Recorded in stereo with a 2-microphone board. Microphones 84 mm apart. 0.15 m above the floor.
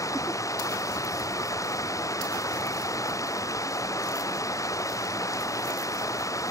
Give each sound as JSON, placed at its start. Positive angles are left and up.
{"t": 0.0, "sound": "running water", "side_deg": 40}